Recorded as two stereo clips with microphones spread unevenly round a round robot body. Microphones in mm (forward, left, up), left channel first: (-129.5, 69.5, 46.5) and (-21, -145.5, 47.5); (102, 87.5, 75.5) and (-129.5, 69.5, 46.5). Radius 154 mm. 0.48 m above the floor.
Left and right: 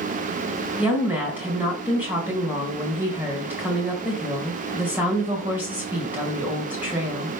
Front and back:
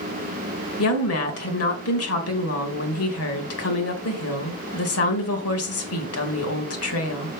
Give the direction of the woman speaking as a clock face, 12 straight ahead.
11 o'clock.